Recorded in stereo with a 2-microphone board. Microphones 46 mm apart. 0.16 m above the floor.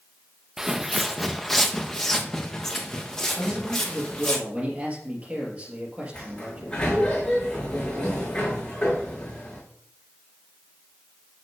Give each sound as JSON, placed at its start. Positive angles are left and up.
{"t": 0.6, "sound": "footsteps", "side_deg": -10, "distance_m": 0.6}
{"t": 3.4, "sound": "a man speaking", "side_deg": -30, "distance_m": 3.0}
{"t": 6.1, "sound": "a sliding door", "side_deg": 15, "distance_m": 4.5}